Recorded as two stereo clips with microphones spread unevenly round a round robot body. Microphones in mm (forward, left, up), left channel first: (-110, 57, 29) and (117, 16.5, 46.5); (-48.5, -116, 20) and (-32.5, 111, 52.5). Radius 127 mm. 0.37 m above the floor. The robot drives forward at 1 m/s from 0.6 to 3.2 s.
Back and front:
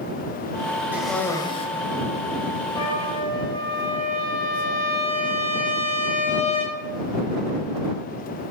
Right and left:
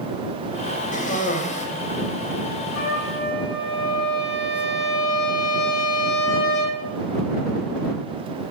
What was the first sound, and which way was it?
A cough, 95° right.